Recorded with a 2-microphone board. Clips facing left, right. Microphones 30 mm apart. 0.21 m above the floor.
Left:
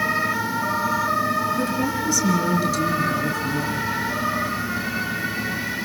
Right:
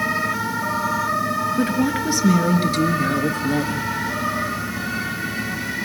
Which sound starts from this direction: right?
A woman speaking, at 1.6 s.